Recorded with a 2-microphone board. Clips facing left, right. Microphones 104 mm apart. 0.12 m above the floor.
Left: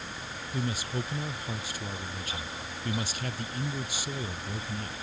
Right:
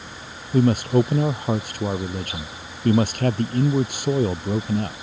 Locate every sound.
0.5 s a man speaking: 60° right (ahead or behind)